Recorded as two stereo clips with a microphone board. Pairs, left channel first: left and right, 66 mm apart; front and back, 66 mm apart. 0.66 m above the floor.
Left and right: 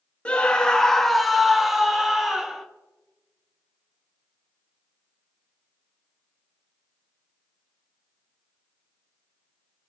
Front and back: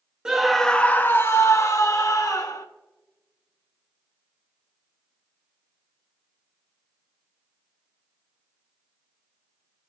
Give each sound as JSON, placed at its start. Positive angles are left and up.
{"t": 0.2, "sound": "a scream", "azimuth_deg": 125, "distance_m": 0.6}